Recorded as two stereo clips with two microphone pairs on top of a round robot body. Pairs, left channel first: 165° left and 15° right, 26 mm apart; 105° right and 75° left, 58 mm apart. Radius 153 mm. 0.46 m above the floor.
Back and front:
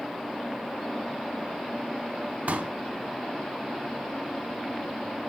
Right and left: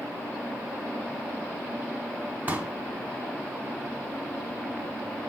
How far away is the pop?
About 1.2 m.